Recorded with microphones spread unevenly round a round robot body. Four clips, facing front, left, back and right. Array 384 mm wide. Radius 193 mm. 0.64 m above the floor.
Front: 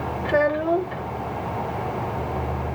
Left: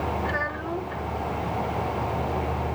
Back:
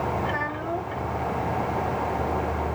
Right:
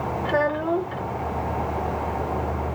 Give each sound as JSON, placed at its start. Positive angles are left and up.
{"t": 0.2, "sound": "a child speaking", "azimuth_deg": -30}